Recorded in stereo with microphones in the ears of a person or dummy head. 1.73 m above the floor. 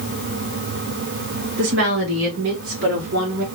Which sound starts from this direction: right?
A woman speaking, at 1.6 s.